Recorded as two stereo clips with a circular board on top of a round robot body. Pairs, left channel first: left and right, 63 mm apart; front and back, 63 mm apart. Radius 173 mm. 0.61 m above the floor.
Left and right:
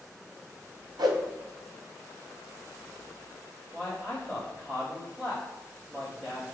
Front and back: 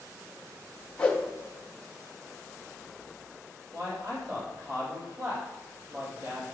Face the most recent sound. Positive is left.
turn(degrees=-165)